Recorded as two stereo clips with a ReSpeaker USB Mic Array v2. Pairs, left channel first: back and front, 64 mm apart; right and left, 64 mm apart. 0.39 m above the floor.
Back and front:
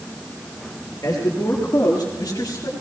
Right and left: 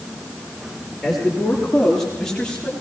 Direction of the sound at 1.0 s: 175° left.